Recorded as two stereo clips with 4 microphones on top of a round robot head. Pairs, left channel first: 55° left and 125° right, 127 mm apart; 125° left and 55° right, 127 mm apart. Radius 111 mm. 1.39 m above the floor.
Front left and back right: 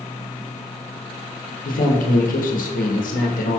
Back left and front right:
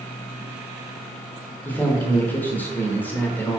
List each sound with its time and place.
1.6 s a man speaking: 50° left, 0.9 m